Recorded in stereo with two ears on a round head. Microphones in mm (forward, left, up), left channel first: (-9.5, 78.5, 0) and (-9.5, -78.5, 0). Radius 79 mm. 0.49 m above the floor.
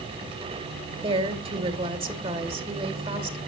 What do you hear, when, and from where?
1.0 s a woman speaking: 35° right (ahead or behind), 2.5 m